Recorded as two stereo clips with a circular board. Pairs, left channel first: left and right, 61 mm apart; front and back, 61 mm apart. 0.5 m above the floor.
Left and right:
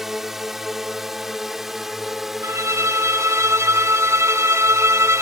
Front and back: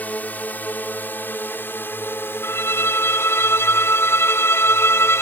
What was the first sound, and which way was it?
A drone, 15° right.